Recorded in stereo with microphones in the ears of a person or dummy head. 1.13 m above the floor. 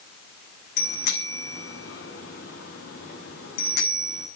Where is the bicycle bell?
50° left (ahead or behind), 7.5 m.